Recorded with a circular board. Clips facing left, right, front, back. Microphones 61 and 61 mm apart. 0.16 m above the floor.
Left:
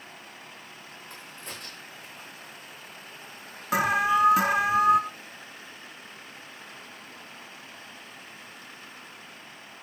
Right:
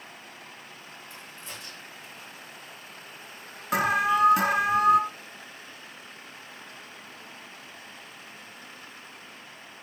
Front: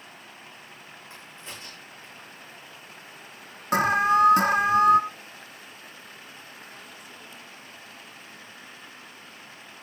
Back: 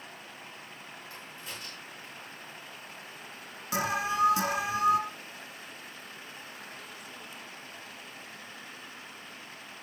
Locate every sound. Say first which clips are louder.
1.1 s a crack: left 2 dB, front 2 dB; 60° left, 8 m
3.7 s an alarm: even, front 9 dB; 5° left, 1.1 m